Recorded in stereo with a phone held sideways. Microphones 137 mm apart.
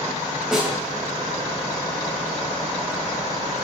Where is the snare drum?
5° right (ahead or behind), 2.5 m.